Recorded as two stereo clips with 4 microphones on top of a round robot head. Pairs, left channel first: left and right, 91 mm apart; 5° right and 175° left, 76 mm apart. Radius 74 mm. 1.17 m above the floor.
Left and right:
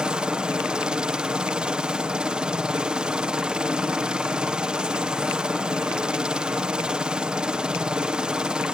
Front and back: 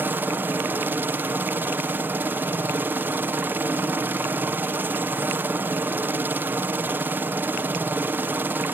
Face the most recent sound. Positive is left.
turn(degrees=-160)